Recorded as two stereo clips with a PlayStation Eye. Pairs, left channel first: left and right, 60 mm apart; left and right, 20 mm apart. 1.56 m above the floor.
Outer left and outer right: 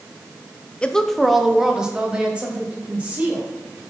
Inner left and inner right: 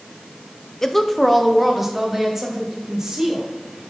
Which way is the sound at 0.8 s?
20° left (ahead or behind).